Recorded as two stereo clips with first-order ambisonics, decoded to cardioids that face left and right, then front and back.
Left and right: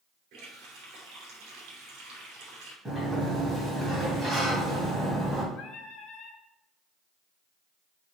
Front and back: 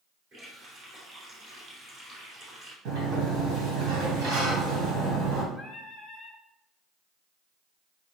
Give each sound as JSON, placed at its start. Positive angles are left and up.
{"t": 0.3, "sound": "a running tap", "azimuth_deg": -120, "distance_m": 3.0}
{"t": 2.9, "sound": "a sliding door", "azimuth_deg": -165, "distance_m": 2.5}
{"t": 5.5, "sound": "singing", "azimuth_deg": 85, "distance_m": 1.4}